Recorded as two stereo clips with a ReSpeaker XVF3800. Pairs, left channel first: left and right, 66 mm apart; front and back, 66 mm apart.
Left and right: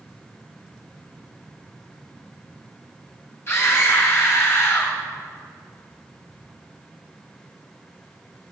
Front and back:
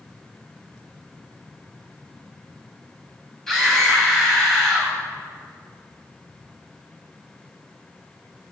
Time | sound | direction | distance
3.5 | a scream | 80° left | 1.9 m